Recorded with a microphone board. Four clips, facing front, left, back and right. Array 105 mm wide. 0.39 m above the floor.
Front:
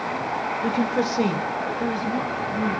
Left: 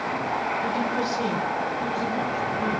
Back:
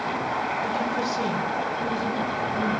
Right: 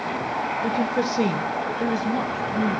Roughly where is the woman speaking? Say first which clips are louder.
Right 2 dB, front 3 dB; ahead right.